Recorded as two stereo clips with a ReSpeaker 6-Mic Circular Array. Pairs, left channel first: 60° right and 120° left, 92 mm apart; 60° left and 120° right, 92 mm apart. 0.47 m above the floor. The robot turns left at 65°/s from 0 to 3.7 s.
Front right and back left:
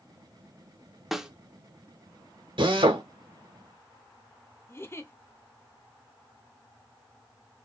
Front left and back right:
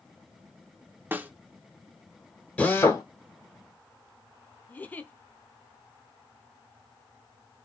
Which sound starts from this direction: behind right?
A snare drum, at 1.1 s.